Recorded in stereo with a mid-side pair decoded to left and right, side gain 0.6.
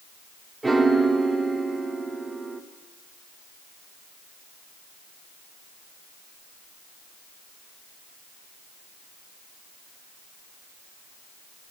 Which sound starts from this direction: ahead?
A piano, at 0.6 s.